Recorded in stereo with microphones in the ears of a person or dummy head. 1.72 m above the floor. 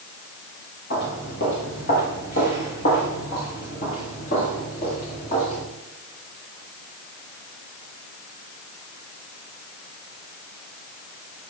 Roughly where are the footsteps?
Left.